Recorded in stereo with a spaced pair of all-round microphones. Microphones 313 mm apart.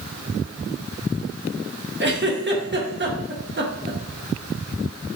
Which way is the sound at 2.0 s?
35° right (ahead or behind).